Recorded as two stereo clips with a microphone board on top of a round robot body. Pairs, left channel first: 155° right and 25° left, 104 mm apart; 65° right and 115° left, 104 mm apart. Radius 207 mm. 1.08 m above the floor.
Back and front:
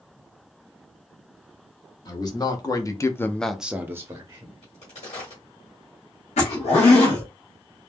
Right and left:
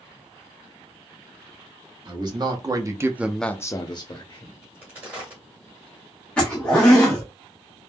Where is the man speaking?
155° left, 1.2 m; by 4.5 s 35° right, 1.0 m.